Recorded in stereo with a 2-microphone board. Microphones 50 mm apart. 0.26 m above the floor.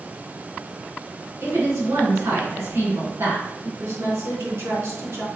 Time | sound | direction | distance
1.4 | a woman speaking | 65° right (ahead or behind) | 3.5 m
3.8 | a woman speaking | 65° right (ahead or behind) | 3.5 m